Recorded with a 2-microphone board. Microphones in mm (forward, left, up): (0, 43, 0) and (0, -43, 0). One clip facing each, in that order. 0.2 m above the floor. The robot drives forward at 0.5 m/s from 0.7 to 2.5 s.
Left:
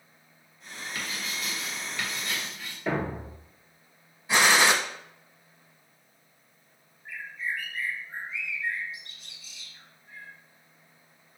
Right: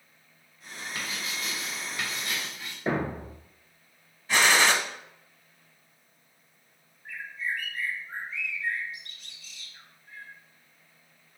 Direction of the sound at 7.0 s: 55° right (ahead or behind).